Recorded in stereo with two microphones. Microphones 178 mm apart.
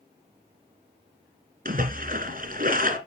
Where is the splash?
55° right (ahead or behind), 2 m.